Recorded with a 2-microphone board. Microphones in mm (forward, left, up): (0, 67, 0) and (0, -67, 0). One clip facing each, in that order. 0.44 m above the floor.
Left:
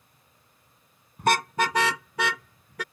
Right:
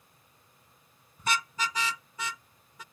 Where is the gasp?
No gasp in this recording.